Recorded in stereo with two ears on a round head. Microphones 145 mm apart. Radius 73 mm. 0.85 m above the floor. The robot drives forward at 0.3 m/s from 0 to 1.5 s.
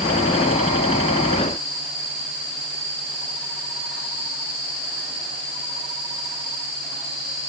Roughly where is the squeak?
No squeak in this recording.